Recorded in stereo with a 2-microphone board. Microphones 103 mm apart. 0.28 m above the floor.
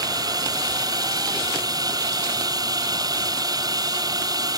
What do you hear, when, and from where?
0.0 s a drone: 40° right (ahead or behind)